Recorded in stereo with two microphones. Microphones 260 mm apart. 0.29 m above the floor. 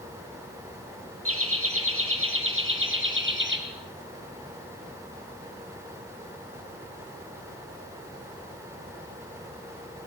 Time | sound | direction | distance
1.2 | laughter | 60° right (ahead or behind) | 6.5 m